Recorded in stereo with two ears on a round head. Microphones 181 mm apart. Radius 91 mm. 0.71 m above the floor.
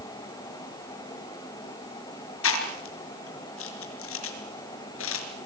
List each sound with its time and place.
2.4 s chewing: 75° left (ahead or behind), 4.5 m